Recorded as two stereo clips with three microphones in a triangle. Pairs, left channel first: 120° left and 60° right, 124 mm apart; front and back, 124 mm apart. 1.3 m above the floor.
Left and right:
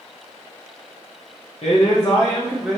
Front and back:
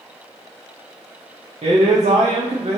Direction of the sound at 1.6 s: 150° left.